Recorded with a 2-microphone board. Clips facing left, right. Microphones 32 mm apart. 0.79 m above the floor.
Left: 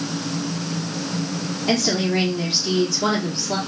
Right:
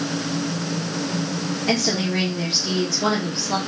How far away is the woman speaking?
About 2 m.